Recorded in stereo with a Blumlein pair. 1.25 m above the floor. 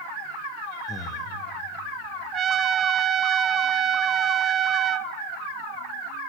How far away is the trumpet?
About 0.6 m.